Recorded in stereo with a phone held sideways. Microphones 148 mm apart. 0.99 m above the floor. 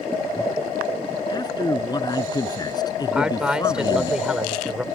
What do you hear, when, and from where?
1.3 s a man speaking: 25° left (ahead or behind)
3.1 s a man speaking: 5° right (ahead or behind)